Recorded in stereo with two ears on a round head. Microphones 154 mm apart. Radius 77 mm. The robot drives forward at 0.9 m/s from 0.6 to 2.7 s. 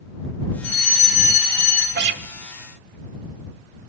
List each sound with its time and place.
0.6 s a fire alarm: 50° left (ahead or behind), 3 m; by 1.9 s 40° left (ahead or behind), 3.5 m
1.9 s a guitar: 65° right (ahead or behind), 1.1 m; by 2.2 s 70° right (ahead or behind), 1.0 m